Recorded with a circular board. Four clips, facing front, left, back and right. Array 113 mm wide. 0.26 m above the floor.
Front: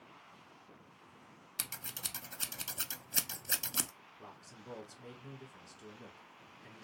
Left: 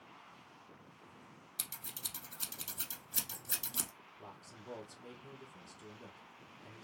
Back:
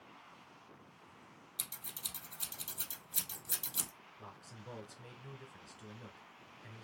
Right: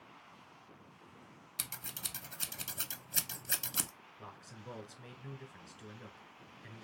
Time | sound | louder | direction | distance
1.6 | scissors | right 4 dB, front 6 dB | 30° right | 0.5 m
4.2 | a man speaking | right 2 dB, even | 105° right | 1.4 m